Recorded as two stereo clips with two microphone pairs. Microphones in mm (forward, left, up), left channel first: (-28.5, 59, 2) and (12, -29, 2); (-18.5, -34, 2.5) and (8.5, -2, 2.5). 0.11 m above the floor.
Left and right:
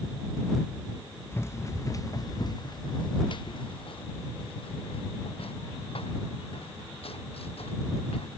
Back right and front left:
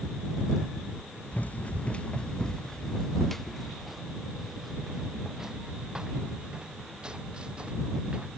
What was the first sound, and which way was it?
Running footsteps, straight behind.